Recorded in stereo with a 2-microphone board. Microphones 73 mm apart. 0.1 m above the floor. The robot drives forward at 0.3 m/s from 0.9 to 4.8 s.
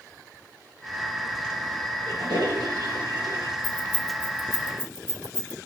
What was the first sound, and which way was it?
A toilet flushing, 75° right (ahead or behind).